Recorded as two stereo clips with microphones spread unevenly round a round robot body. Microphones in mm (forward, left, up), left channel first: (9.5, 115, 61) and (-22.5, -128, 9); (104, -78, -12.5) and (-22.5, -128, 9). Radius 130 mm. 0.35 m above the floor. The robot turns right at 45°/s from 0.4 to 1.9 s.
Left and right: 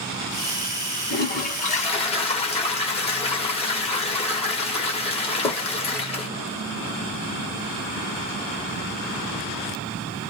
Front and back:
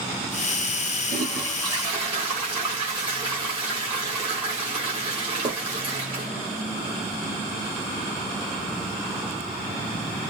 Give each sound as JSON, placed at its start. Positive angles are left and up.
{"t": 1.1, "sound": "a toilet flushing", "azimuth_deg": 115, "distance_m": 1.7}